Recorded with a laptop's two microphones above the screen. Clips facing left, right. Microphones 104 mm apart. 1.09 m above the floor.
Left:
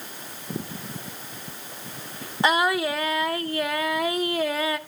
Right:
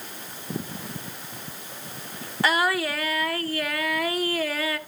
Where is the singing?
20° left (ahead or behind), 1.1 m.